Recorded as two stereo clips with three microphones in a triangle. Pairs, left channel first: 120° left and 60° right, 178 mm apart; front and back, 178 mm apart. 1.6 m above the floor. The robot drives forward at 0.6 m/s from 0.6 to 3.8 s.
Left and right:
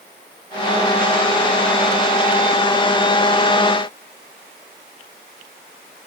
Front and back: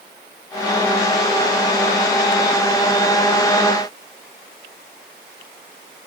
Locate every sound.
Only background noise.